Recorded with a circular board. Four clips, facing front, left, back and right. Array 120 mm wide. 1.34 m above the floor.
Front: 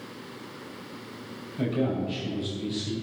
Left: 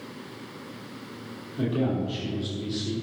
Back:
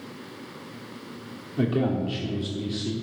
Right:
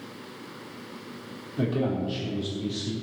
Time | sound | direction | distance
1.6 | a man speaking | 165° right | 3.5 m